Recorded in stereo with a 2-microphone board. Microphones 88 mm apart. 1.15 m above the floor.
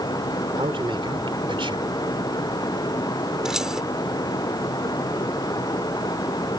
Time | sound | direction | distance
0.6 | a man speaking | 75° right (ahead or behind) | ?
3.5 | keys jangling | 5° right (ahead or behind) | ?